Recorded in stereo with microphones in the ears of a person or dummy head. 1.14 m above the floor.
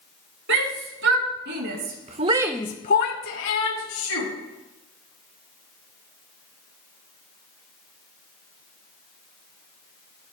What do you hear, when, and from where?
0.5 s a shout: 60° right (ahead or behind), 3 m; by 4.3 s 85° left, 2 m